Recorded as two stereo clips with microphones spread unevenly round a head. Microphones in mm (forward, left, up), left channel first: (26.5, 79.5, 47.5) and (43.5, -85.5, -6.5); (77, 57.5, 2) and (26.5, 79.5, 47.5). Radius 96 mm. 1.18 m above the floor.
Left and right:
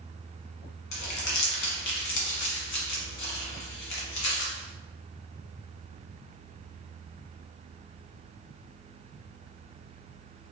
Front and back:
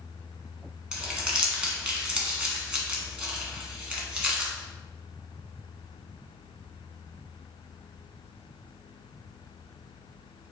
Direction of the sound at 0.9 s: 90° left.